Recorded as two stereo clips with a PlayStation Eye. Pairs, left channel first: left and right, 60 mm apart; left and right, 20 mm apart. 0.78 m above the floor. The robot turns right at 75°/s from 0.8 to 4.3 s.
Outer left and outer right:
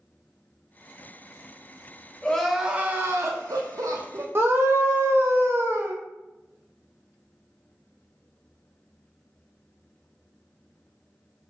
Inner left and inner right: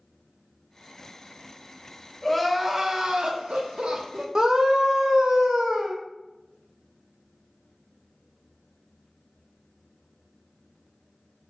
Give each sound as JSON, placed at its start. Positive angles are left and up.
{"t": 2.2, "sound": "crying", "azimuth_deg": 165, "distance_m": 0.6}
{"t": 4.3, "sound": "a scream", "side_deg": -45, "distance_m": 0.7}